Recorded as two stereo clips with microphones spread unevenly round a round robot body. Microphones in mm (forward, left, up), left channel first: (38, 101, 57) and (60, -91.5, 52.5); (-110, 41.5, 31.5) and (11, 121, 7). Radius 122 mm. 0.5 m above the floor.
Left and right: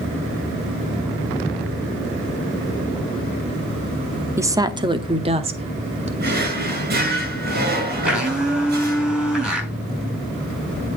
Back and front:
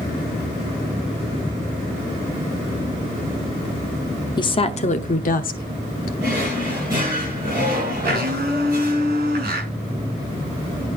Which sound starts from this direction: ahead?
A blender, at 8.1 s.